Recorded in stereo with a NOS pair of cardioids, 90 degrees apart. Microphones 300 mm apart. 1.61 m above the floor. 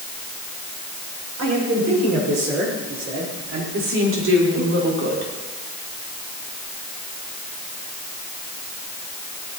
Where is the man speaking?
60° right, 7.5 m.